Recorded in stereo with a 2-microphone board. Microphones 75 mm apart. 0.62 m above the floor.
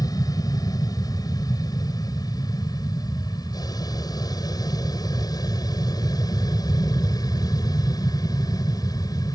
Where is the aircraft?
60° left (ahead or behind).